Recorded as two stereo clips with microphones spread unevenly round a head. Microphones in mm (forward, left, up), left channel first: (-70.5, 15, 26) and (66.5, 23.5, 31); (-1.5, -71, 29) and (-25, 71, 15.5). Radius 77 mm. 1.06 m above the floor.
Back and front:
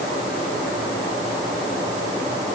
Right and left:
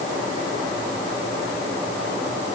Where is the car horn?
No car horn in this recording.